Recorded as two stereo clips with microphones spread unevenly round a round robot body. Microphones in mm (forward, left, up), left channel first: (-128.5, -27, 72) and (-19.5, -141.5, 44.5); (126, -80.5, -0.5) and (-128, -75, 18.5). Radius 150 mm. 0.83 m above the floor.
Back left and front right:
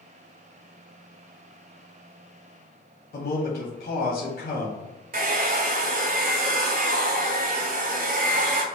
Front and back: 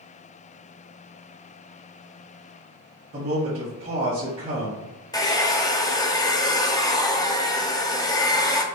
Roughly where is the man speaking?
Behind left.